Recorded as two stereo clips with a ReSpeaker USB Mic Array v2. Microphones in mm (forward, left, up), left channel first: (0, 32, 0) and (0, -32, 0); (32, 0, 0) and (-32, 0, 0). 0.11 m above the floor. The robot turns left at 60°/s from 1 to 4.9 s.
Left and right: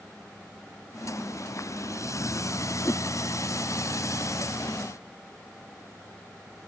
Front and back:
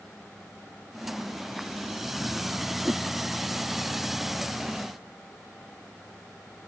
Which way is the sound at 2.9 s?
120° left.